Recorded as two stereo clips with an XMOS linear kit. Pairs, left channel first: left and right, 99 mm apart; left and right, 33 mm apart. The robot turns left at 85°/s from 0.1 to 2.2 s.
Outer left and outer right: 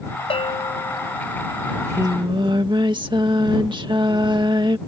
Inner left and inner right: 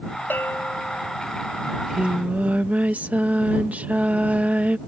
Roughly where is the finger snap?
No finger snap in this recording.